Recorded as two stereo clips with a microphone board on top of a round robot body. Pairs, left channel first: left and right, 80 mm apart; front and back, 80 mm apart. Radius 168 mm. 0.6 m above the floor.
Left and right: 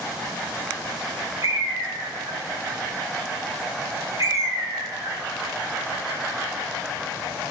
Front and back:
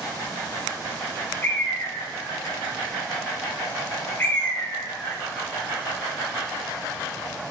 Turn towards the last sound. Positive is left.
turn(degrees=-60)